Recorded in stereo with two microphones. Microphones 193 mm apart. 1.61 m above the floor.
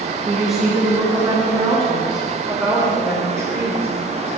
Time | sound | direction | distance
0.2 | a woman speaking | centre (ahead or behind) | 2 m